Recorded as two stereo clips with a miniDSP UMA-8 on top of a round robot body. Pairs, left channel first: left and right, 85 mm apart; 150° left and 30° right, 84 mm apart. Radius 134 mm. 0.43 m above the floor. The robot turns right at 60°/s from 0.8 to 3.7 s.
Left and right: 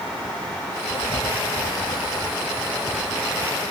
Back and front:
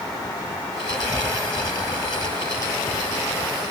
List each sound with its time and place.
0.9 s writing: 60° left; by 3.7 s 135° right